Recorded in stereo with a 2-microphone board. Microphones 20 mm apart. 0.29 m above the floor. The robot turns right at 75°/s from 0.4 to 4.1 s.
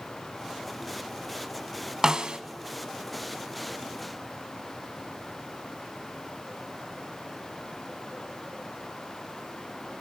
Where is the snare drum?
30° right (ahead or behind), 0.6 m; by 2.4 s 55° right (ahead or behind), 0.6 m.